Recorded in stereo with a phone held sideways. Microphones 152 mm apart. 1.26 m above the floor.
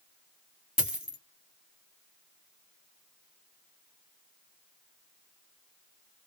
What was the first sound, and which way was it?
A dropped coin, 5° right (ahead or behind).